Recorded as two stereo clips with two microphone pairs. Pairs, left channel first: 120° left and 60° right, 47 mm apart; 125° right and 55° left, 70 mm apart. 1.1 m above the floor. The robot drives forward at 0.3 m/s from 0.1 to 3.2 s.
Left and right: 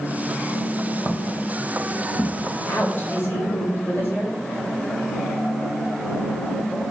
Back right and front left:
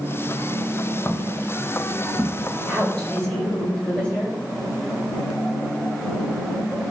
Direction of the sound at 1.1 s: 140° left.